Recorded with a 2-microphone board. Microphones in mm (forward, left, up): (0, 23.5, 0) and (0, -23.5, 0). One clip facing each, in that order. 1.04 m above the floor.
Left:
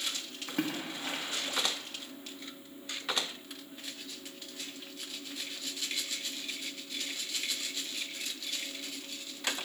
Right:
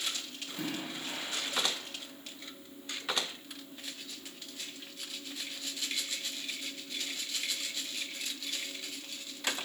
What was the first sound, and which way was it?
A splash, 75° left (ahead or behind).